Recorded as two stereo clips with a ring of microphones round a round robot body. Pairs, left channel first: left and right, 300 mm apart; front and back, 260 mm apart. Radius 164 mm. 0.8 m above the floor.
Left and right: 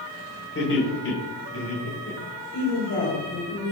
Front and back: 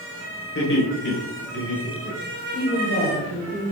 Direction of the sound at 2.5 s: 35° left.